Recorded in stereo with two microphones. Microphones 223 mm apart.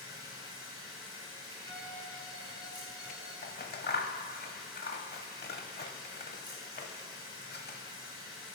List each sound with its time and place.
0.0 s running water: 15° right (ahead or behind), 3.5 m
1.6 s a violin: 20° right (ahead or behind), 4.5 m
3.4 s scissors: 45° left (ahead or behind), 0.7 m